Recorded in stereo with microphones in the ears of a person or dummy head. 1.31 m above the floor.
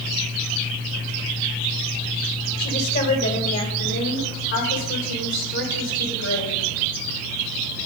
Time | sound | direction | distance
2.6 | a woman speaking | 65° left (ahead or behind) | 2 m